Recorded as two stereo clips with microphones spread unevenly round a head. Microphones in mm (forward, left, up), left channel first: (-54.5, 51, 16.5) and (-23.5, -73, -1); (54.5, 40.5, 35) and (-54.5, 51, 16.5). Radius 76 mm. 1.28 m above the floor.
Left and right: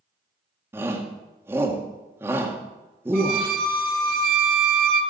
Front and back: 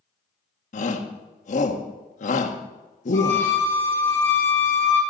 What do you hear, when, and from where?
0.7 s a shout: straight ahead, 1.9 m
3.1 s a violin: 75° right, 3 m